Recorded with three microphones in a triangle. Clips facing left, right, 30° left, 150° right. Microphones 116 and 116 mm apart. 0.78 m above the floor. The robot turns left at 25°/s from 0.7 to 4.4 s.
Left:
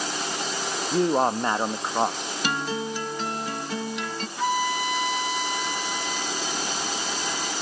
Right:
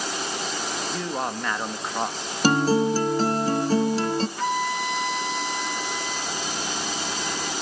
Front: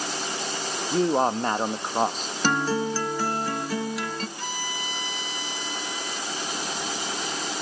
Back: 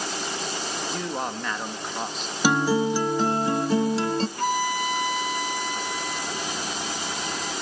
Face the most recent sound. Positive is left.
turn(degrees=180)